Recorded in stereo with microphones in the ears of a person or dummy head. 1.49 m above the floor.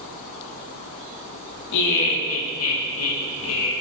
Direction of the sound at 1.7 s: 65° left (ahead or behind).